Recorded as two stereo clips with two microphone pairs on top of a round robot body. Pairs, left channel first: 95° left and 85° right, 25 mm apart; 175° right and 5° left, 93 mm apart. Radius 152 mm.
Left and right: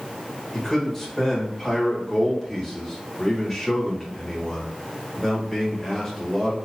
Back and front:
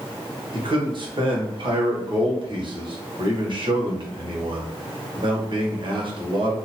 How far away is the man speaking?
About 1.6 m.